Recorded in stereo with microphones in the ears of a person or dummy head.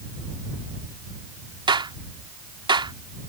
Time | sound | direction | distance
1.7 | a clap | 20° right (ahead or behind) | ?